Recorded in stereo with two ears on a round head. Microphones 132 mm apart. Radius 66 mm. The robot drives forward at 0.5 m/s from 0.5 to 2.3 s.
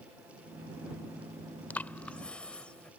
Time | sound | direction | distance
1.7 | breathing | 10° left (ahead or behind) | ?